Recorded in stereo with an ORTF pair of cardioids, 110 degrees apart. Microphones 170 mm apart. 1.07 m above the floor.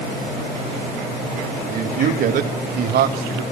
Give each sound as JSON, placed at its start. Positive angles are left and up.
{"t": 1.7, "sound": "a man speaking", "azimuth_deg": -50, "distance_m": 2.5}